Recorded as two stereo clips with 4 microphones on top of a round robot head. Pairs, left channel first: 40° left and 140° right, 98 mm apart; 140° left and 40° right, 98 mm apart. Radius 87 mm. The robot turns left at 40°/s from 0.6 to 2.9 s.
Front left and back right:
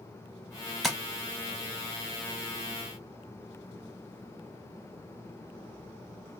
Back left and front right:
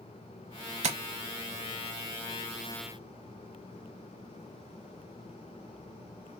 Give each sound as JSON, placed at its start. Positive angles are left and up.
{"t": 0.8, "sound": "tapping", "azimuth_deg": -45, "distance_m": 0.7}